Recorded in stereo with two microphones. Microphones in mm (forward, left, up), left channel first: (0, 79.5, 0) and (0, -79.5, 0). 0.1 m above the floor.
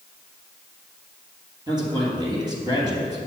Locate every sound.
1.7 s a man speaking: 25° right (ahead or behind), 3 m